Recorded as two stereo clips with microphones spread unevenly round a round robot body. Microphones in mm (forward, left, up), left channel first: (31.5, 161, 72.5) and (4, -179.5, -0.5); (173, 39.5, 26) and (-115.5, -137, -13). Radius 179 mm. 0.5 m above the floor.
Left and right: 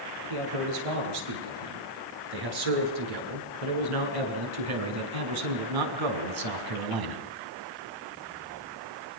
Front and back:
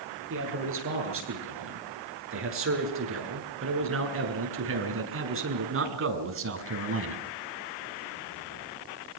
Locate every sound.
0.3 s a man speaking: 95° right, 9.5 m; by 7.2 s 100° right, 4 m